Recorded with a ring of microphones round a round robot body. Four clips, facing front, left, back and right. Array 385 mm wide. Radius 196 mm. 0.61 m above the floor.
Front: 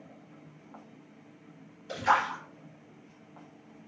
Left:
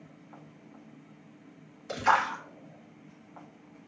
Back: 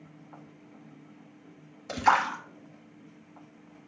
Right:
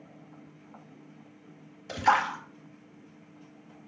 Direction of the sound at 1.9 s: 165° right.